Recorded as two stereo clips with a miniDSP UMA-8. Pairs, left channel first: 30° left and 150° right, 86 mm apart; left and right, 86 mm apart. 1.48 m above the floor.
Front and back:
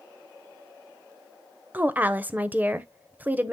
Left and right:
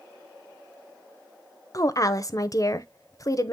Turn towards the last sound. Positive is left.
turn(degrees=140)